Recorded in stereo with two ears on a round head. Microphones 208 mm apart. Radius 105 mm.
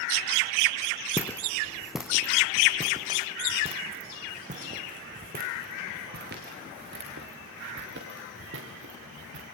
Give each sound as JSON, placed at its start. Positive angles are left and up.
{"t": 1.2, "sound": "footsteps", "side_deg": 10, "distance_m": 1.9}